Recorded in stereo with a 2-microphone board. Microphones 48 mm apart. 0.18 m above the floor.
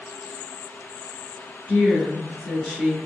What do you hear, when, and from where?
1.7 s a woman speaking: 5° right (ahead or behind), 1.9 m